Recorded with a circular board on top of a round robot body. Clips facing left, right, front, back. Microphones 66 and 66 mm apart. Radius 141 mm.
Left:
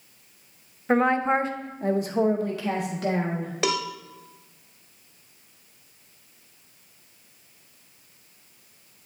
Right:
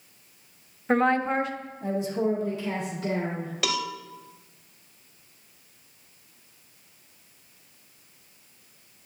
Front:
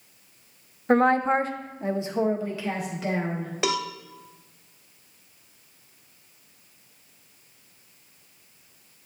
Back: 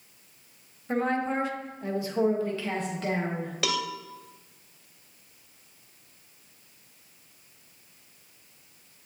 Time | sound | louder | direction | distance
0.9 | a woman speaking | left 2 dB, front 7 dB | 5° left | 0.7 m
3.6 | a cowbell | left 3 dB, front 3 dB | 45° left | 0.9 m